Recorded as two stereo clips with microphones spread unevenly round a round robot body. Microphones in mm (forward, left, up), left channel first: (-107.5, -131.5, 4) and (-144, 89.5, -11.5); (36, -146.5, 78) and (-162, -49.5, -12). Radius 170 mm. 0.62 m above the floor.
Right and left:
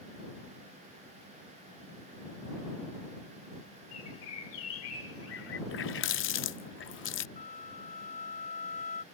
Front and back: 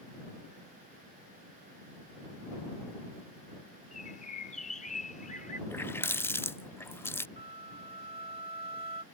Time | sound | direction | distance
3.9 | a bird | 95° right | ?
5.7 | a running tap | 115° right | ?
7.4 | a flute | 135° right | ?